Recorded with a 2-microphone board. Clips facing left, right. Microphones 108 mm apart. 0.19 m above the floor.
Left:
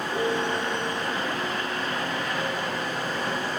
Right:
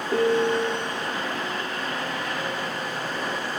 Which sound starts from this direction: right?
A piano, at 0.1 s.